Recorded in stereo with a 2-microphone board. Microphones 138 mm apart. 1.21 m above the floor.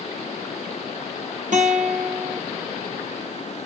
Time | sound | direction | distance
1.5 | a guitar | 65° right (ahead or behind) | 0.8 m